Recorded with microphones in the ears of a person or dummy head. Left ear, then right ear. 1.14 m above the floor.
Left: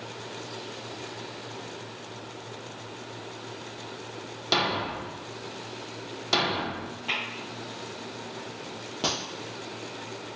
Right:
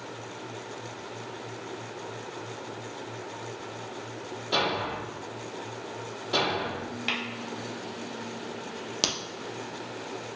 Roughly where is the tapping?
Right.